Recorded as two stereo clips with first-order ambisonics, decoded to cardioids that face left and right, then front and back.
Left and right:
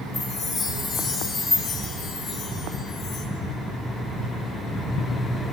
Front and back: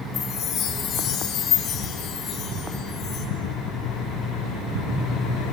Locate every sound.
0.1 s a chime: 60° left, 3 m